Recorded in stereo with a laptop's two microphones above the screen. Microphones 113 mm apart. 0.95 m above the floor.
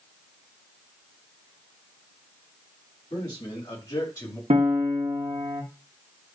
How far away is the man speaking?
About 6 m.